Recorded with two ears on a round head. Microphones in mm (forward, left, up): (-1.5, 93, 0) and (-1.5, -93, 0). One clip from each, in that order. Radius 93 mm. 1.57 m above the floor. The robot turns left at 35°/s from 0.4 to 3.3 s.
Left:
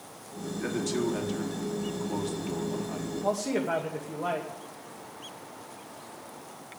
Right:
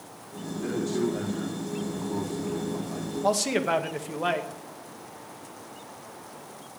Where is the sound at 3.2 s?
75° right (ahead or behind), 2 m; by 4.5 s 70° right (ahead or behind), 2 m.